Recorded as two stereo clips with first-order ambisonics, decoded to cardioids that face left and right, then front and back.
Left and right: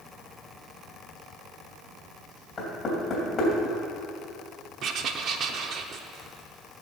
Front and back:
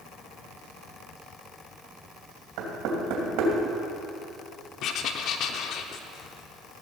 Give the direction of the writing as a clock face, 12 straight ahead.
1 o'clock.